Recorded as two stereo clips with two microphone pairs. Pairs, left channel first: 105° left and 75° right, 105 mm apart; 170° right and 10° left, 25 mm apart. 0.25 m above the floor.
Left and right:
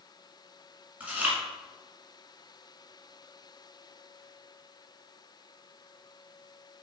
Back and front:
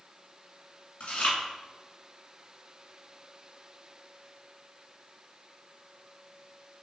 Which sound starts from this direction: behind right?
Chewing, at 1.0 s.